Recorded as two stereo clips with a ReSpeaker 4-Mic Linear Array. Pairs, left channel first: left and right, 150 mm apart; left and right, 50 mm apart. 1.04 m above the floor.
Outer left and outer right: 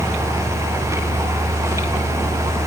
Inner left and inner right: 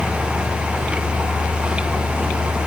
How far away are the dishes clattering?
I don't hear dishes clattering.